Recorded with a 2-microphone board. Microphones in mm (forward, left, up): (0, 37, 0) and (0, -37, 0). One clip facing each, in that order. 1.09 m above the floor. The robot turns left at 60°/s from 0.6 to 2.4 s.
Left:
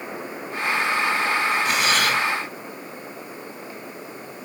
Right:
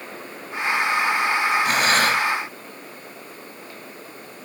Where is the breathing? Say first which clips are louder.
Right 2 dB; 105° right, 1.4 m; by 2.2 s 140° right, 1.4 m.